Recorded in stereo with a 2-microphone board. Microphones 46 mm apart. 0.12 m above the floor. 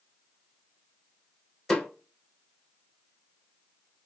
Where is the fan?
I don't hear a fan.